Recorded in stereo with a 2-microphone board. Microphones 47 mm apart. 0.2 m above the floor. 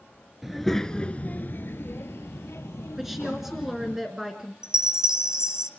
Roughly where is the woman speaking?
Centre.